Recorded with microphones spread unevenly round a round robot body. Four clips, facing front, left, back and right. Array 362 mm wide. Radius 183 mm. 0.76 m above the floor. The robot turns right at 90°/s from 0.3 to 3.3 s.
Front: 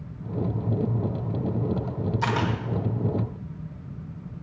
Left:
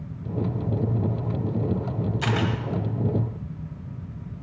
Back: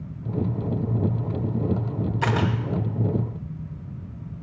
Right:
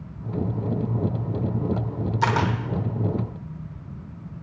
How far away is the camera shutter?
About 1.2 m.